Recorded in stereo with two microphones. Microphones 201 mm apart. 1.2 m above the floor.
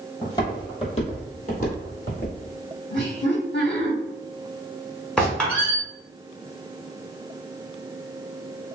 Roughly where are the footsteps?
Centre.